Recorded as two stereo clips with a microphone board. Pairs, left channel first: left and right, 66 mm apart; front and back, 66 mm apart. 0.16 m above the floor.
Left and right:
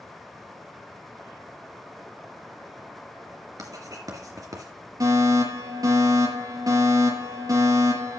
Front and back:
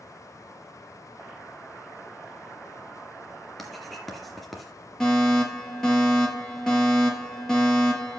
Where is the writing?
90° right, 2.5 m.